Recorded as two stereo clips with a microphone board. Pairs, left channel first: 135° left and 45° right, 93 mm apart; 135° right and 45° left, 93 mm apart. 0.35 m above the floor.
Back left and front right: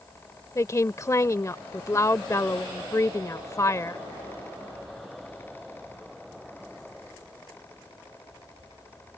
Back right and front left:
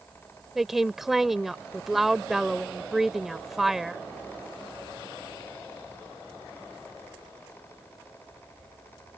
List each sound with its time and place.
0.6 s a woman speaking: 130° left